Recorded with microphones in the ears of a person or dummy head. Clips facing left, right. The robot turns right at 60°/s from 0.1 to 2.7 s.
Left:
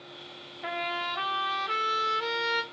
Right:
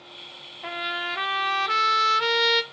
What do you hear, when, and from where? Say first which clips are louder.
0.6 s a trumpet: even; 170° left, 0.5 m; by 2.6 s 70° right, 0.5 m